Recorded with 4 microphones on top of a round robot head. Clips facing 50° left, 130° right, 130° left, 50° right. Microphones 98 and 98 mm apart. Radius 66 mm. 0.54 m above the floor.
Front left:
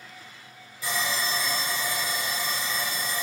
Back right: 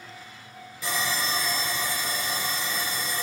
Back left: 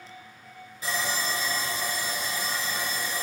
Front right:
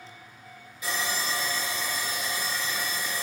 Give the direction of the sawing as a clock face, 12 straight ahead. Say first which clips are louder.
Even, back left 1 dB; 6 o'clock.